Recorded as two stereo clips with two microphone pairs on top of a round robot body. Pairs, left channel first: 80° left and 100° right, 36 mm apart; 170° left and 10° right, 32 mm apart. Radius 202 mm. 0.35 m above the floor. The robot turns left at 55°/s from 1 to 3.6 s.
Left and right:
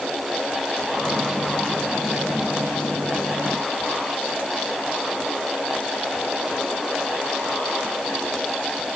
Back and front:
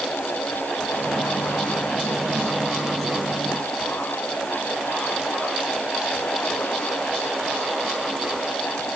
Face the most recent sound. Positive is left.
No sound to turn to.